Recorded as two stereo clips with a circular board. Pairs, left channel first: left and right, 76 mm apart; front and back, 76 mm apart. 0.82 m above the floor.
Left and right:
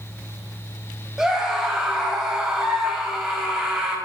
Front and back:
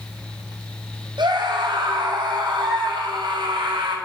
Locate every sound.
1.2 s a scream: 175° right, 4 m